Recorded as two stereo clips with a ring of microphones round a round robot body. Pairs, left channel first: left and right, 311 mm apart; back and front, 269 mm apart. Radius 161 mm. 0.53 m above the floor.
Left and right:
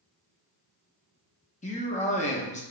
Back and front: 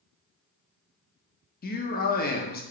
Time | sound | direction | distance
1.6 | a man speaking | 145° left | 0.7 m